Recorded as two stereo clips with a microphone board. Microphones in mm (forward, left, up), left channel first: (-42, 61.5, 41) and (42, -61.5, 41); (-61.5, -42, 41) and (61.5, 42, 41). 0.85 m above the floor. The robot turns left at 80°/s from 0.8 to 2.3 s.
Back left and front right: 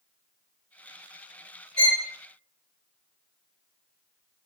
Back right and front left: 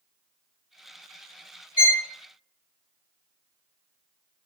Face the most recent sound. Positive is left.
turn(degrees=140)